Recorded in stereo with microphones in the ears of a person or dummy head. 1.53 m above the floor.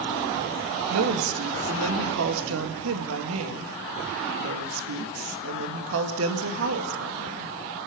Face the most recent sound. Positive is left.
turn(degrees=-80)